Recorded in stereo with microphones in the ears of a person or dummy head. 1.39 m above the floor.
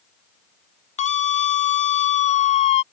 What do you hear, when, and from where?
1.0 s a scream: 40° left (ahead or behind)